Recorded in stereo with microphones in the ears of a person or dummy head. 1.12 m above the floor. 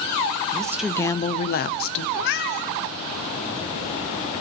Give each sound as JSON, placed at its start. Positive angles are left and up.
{"t": 0.5, "sound": "a woman speaking", "side_deg": -20, "distance_m": 0.6}
{"t": 2.1, "sound": "a cat meowing", "side_deg": 55, "distance_m": 1.0}